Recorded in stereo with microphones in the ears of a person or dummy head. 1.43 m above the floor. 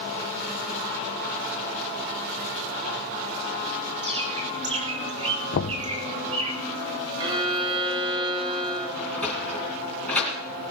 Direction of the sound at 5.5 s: 45° left (ahead or behind).